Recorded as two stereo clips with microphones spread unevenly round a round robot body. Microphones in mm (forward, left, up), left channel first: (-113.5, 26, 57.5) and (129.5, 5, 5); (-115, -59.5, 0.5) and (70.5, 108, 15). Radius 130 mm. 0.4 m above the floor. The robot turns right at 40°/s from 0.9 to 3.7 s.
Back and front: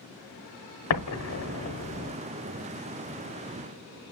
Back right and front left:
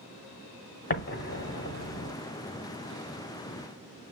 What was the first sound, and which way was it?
An explosion, straight behind.